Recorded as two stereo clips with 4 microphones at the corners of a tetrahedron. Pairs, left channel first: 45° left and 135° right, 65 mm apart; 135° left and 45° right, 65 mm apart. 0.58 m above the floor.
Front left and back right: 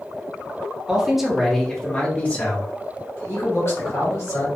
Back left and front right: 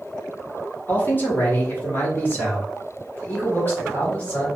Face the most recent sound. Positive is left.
turn(degrees=75)